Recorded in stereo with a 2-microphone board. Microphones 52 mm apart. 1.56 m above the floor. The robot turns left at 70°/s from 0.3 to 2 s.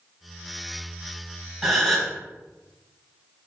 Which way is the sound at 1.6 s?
Centre (ahead or behind).